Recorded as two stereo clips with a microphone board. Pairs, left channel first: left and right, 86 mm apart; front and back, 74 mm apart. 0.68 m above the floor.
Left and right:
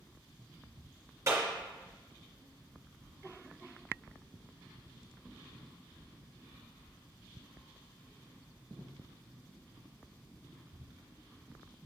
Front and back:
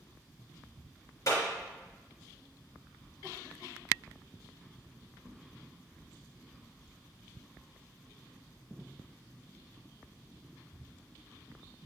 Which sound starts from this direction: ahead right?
A clap, at 1.3 s.